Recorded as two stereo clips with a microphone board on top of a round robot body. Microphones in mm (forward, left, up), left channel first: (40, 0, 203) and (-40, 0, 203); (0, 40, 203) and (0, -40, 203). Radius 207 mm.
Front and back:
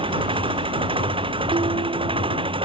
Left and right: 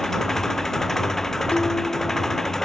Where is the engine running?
175° left.